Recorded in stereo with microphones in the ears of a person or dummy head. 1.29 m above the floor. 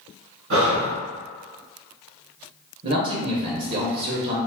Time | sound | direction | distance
0.5 | breathing | 75° right (ahead or behind) | 1.6 m
2.8 | a man speaking | 45° right (ahead or behind) | 0.8 m